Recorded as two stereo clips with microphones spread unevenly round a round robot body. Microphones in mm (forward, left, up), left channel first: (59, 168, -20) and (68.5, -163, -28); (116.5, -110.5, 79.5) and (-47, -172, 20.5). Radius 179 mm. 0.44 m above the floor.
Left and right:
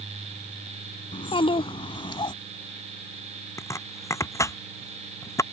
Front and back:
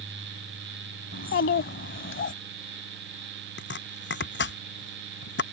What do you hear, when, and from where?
1.1 s a child speaking: 15° left
3.6 s chopping: 10° left